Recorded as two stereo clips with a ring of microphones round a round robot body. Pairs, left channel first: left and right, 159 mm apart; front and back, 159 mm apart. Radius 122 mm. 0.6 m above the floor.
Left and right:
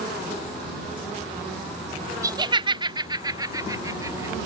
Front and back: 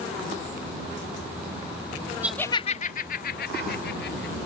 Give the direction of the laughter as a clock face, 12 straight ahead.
4 o'clock.